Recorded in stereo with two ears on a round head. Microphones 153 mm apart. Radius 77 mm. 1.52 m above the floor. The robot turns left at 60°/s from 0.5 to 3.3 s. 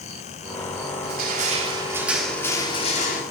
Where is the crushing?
110° right, 4.5 m; by 3.2 s 120° left, 4.5 m.